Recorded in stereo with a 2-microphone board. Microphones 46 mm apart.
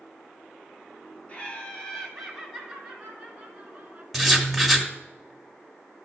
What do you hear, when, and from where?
1.3 s laughter: 30° left (ahead or behind), 1.8 m; by 4.0 s 25° right (ahead or behind), 2.5 m
4.1 s writing: centre (ahead or behind), 1.3 m